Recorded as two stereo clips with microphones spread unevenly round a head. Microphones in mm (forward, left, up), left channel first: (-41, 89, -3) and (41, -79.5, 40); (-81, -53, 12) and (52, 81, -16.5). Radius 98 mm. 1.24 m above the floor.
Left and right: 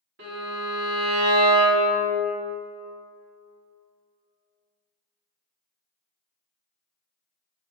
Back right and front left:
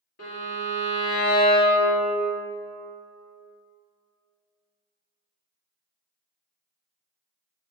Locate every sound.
0.2 s a violin: 90° right, 1.4 m